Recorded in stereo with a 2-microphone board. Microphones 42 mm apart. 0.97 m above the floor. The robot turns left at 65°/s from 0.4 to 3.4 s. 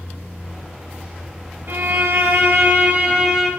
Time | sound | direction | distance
1.7 | a violin | 55° right | 4 m